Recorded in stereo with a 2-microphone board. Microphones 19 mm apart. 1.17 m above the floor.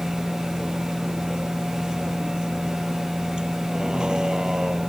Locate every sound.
0.0 s a vehicle: 40° right (ahead or behind); by 4.9 s 35° right (ahead or behind)